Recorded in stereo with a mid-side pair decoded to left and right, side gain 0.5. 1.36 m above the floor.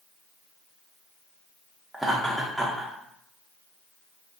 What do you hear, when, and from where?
1.9 s laughter: 5° right, 0.6 m